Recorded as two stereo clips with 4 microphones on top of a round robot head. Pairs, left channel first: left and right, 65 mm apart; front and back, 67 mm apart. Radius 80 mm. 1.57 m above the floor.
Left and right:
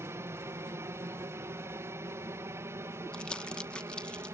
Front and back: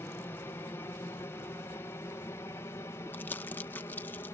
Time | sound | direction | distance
0.0 | an aircraft | 50° right | ?
3.1 | crumpling | 30° left | ?